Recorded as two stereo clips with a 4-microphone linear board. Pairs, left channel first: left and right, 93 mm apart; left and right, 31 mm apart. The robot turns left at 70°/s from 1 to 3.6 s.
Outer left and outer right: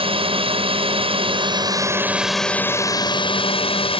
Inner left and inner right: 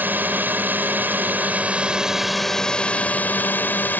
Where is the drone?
85° right; by 4.0 s 95° left.